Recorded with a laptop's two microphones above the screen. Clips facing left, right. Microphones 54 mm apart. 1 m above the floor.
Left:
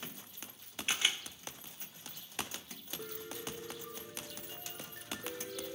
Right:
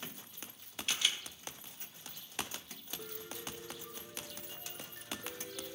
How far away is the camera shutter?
About 1.0 m.